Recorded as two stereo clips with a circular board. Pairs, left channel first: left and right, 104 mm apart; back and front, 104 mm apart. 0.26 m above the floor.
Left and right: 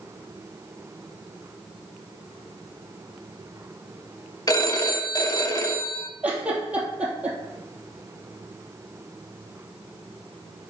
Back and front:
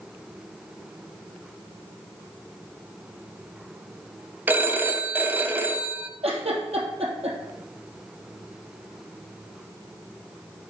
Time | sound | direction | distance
4.5 | a phone ringing | 65° left | 0.8 m
6.2 | a giggle | 10° right | 2.5 m